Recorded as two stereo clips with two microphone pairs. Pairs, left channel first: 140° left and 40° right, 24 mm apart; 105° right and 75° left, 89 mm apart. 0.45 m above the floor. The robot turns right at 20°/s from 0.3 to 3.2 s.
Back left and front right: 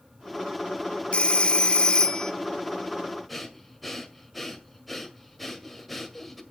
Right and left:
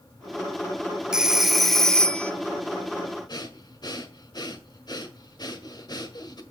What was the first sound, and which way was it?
A phone ringing, 155° left.